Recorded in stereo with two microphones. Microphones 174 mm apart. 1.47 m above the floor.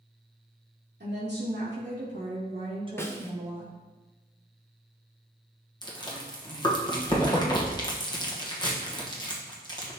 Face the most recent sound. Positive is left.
turn(degrees=25)  # may be behind; listen again after turning